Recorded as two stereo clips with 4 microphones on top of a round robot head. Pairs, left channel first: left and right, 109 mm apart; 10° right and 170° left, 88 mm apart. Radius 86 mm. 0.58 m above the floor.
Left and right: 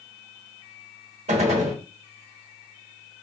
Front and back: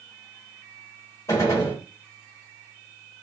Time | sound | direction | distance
1.3 | a gunshot | 70° right | 0.8 m